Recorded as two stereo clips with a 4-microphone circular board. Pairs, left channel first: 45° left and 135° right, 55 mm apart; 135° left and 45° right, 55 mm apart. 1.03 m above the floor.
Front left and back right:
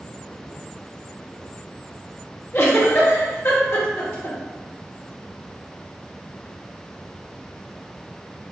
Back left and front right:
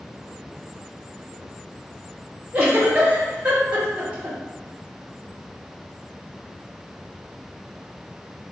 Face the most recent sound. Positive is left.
turn(degrees=15)